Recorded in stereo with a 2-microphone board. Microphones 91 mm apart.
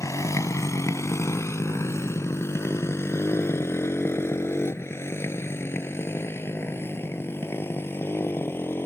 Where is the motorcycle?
35° left (ahead or behind); by 8.9 s 25° left (ahead or behind).